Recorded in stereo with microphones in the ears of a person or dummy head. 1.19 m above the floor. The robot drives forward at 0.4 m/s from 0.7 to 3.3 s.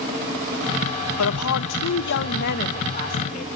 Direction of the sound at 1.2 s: 80° left.